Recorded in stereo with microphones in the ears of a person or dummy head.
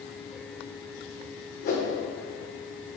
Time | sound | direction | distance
1.6 | a whoosh | 55° left (ahead or behind) | 1.5 m